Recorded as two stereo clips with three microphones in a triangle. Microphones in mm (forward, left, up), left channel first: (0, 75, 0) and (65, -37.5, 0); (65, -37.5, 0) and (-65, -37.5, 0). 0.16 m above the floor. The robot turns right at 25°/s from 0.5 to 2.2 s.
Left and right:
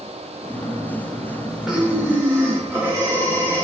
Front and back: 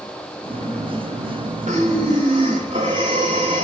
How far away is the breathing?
About 6 m.